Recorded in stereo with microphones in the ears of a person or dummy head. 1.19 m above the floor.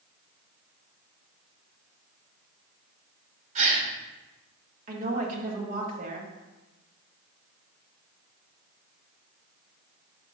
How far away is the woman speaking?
About 1.5 m.